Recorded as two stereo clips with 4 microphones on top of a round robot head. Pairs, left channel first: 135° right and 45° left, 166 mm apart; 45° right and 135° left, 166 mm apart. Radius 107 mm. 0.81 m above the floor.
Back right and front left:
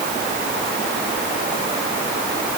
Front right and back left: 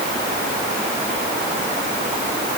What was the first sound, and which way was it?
Only background noise.